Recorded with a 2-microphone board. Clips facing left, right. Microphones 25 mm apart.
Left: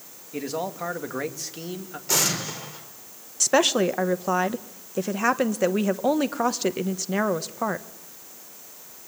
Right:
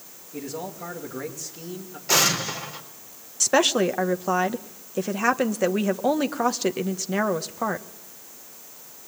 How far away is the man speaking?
About 2.5 m.